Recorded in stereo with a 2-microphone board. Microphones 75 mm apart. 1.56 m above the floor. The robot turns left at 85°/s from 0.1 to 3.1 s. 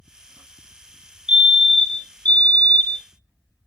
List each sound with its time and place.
1.3 s a fire alarm: 10° right (ahead or behind), 0.7 m; by 3.0 s 20° left (ahead or behind), 0.7 m